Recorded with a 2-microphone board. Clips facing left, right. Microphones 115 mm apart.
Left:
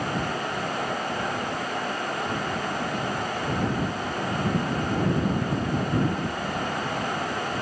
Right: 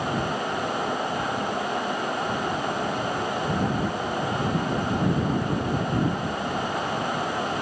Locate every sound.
Only background noise.